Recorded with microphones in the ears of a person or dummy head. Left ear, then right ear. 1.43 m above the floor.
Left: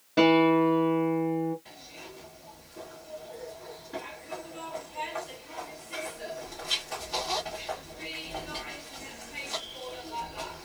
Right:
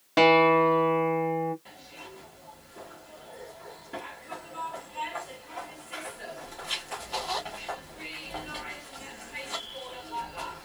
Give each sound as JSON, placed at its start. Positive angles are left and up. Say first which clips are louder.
{"t": 0.2, "sound": "a guitar", "louder": "right 2 dB", "side_deg": -60, "distance_m": 1.1}
{"t": 1.6, "sound": "a zipper", "louder": "even", "side_deg": -25, "distance_m": 1.4}